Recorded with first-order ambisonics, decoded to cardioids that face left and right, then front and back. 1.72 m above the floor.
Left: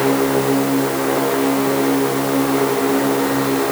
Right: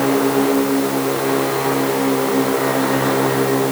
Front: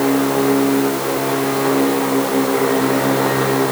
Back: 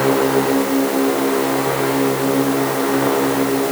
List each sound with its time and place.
Only background noise.